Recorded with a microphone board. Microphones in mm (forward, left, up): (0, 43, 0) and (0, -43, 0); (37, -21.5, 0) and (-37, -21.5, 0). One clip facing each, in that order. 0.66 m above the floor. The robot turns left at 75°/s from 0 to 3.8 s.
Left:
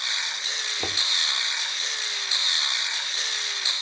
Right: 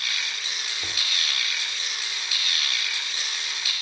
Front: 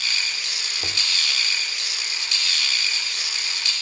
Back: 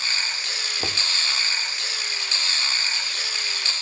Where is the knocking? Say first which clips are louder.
Left 6 dB, back 2 dB; 130° left, 1.7 m; by 1.1 s 110° left, 1.7 m.